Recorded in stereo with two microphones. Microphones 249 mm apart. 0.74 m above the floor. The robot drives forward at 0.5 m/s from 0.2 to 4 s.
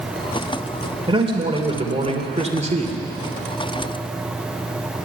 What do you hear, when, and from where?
1.1 s a man speaking: 20° right (ahead or behind), 3 m; by 3.0 s 30° right (ahead or behind), 2 m